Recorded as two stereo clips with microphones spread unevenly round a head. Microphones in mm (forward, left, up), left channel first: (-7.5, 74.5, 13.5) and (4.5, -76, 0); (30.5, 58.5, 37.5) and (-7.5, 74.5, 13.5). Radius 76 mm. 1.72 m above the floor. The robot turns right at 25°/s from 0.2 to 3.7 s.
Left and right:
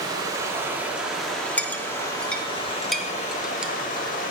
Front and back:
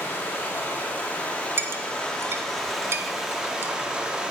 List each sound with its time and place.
0.0 s running water: 20° right, 2 m; by 4.3 s 70° left, 2 m
1.6 s a clink: 130° left, 0.7 m; by 3.7 s 175° right, 0.7 m